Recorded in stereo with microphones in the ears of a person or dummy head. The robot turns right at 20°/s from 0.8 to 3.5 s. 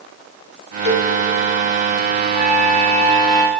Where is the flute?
5° left (ahead or behind), 6.5 m; by 3.5 s 30° left (ahead or behind), 6.5 m.